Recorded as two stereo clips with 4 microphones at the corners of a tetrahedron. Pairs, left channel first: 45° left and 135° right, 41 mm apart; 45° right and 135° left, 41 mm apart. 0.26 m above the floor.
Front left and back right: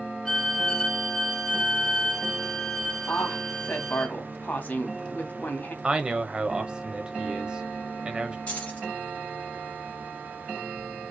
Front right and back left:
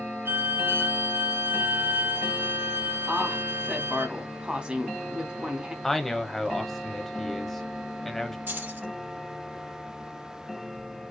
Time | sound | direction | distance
0.2 | a violin | 120° left | 1.1 m
3.1 | a woman speaking | 75° left | 1.6 m
5.8 | a man speaking | 115° right | 0.9 m
8.5 | keys jangling | 105° left | 3.5 m